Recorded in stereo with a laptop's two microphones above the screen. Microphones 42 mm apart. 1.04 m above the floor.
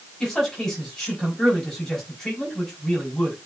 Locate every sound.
0.2 s a man speaking: 5° left (ahead or behind), 5.5 m